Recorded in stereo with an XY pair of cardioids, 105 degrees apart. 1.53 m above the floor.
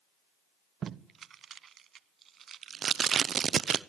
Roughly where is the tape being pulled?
Ahead right.